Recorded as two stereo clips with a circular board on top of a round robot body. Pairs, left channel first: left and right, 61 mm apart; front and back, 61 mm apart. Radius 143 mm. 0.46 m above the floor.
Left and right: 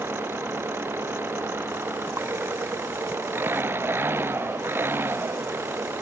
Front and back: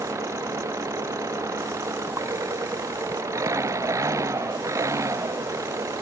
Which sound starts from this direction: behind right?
An engine running, at 0.0 s.